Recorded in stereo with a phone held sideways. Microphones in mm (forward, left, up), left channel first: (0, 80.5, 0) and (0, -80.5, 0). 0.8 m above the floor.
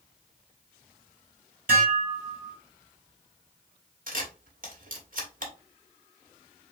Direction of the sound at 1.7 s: 65° right (ahead or behind).